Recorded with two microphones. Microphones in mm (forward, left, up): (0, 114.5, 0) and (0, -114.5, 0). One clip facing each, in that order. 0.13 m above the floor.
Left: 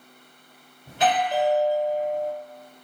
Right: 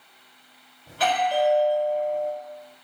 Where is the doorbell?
20° left (ahead or behind), 1.7 m.